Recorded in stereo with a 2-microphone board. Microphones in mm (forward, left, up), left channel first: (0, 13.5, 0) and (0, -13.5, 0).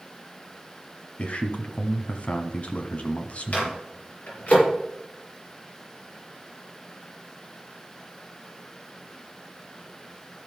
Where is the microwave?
50° left (ahead or behind), 5 m.